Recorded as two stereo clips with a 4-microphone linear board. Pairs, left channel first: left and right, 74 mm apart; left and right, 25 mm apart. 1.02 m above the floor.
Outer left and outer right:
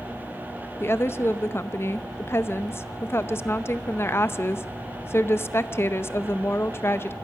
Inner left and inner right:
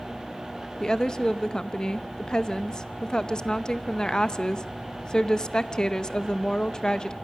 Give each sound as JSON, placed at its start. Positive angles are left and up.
{"t": 0.8, "sound": "a woman speaking", "side_deg": 35, "distance_m": 0.6}